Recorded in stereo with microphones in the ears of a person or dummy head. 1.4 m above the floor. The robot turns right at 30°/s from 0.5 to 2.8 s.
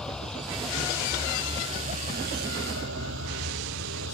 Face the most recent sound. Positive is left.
turn(degrees=-70)  # may be behind; listen again after turning